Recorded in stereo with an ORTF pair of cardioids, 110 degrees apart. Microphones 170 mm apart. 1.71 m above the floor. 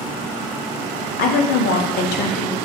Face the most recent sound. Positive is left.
turn(degrees=65)